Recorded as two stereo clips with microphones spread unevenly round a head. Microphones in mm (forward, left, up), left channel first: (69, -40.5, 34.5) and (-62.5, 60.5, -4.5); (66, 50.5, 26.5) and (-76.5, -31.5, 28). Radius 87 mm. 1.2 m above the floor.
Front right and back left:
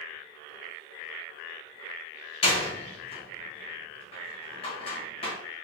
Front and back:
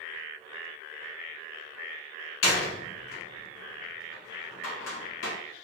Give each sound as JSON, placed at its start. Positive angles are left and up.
{"t": 2.4, "sound": "a door slam", "azimuth_deg": 20, "distance_m": 1.0}